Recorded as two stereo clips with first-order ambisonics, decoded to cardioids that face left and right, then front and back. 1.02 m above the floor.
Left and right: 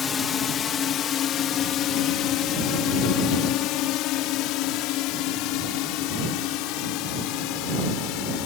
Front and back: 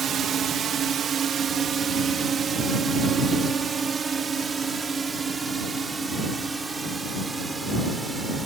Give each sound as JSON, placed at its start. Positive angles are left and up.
{"t": 0.0, "sound": "a drone", "azimuth_deg": 140}